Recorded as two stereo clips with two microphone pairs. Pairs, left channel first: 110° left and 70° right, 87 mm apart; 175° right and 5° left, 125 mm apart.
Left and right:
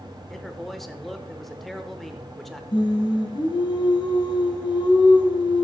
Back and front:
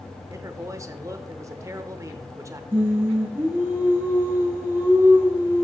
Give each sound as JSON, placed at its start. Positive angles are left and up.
{"t": 0.3, "sound": "a man speaking", "azimuth_deg": 25, "distance_m": 0.8}
{"t": 2.7, "sound": "singing", "azimuth_deg": 75, "distance_m": 2.0}